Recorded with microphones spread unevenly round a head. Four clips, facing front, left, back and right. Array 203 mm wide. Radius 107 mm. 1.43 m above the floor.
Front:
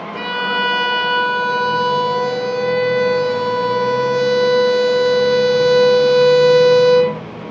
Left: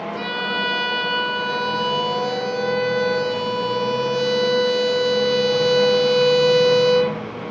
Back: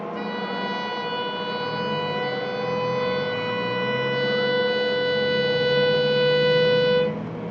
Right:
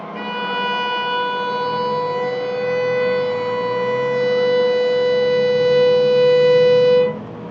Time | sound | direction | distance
0.1 | a violin | 25° right | 5.5 m